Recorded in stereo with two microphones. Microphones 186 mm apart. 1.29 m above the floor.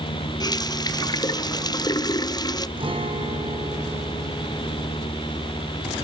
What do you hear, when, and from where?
0.4 s a running tap: 20° left (ahead or behind), 0.6 m
2.8 s a guitar: 30° right (ahead or behind), 3 m